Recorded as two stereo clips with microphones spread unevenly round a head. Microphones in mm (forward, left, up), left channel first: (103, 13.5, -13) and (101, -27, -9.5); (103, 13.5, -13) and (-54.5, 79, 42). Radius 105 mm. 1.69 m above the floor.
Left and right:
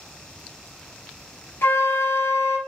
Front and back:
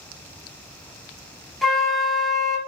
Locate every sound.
1.6 s a flute: 70° left, 0.6 m